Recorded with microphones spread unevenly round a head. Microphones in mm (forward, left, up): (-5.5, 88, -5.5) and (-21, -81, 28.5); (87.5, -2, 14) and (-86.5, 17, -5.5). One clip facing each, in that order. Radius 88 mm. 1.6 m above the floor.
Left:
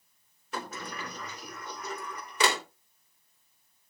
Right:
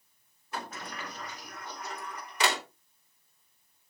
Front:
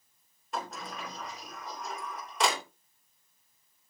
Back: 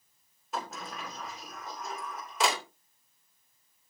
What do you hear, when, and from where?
0.5 s a sliding door: 85° left, 3 m